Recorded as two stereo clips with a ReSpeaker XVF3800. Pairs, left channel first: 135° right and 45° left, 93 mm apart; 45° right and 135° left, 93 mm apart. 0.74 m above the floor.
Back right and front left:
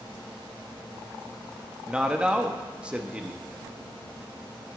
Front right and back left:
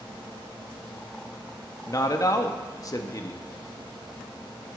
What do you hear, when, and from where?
1.9 s a man speaking: 30° right, 0.9 m